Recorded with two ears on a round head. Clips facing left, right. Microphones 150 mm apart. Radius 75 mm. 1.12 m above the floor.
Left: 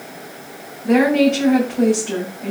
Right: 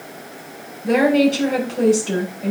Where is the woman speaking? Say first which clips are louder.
Left 1 dB; 40° right (ahead or behind), 8.5 m.